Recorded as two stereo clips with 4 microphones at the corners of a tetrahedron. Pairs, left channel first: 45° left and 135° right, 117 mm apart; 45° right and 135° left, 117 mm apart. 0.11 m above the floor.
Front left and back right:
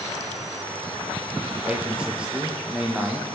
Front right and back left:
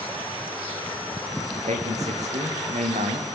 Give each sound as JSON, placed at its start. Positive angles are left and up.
{"t": 1.6, "sound": "a man speaking", "azimuth_deg": 145, "distance_m": 5.0}